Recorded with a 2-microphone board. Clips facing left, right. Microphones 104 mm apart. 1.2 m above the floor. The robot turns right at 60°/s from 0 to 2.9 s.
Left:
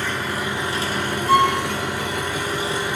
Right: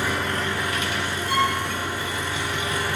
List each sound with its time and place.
0.0 s an engine running: 15° right, 1.1 m; by 3.0 s 160° left, 1.1 m
1.3 s a violin: 70° left (ahead or behind), 4 m; by 1.6 s 75° left (ahead or behind), 4 m